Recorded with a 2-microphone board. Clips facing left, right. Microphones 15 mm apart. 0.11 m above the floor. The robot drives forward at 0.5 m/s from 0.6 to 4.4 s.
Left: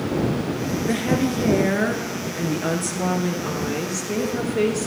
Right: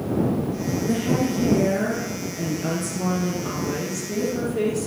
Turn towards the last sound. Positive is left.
turn(degrees=30)  # may be behind; listen again after turning